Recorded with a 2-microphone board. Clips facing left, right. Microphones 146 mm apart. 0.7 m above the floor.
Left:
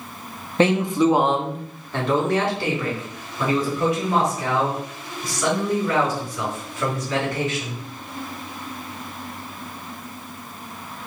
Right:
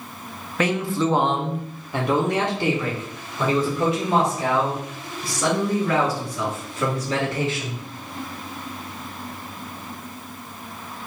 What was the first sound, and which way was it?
A man speaking, 30° left (ahead or behind).